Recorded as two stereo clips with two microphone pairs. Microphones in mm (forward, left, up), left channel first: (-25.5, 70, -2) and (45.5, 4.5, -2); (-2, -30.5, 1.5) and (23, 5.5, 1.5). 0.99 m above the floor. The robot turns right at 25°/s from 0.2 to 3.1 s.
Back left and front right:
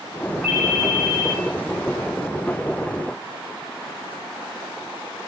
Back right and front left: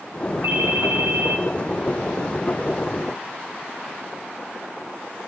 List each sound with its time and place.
0.4 s a ringtone: 25° left, 5.5 m; by 1.4 s 45° left, 5.5 m